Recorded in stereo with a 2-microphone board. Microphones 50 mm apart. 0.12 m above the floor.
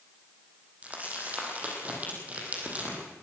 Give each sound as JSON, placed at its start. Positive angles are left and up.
{"t": 0.8, "sound": "crumpling", "side_deg": -30, "distance_m": 5.0}